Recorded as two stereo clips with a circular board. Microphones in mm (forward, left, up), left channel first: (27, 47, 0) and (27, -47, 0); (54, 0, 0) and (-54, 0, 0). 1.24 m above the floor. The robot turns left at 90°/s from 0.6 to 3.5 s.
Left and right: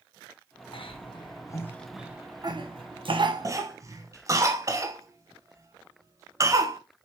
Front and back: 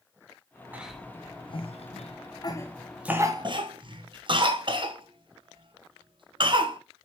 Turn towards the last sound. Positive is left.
turn(degrees=-140)